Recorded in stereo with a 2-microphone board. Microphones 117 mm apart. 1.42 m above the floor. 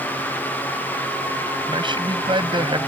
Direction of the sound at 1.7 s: 40° right (ahead or behind).